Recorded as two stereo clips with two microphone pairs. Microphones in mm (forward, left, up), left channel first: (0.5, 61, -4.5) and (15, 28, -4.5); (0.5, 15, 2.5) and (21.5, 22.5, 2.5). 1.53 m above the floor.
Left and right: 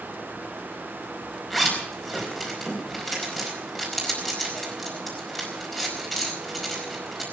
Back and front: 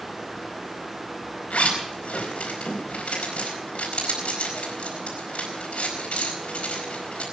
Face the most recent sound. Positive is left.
turn(degrees=-155)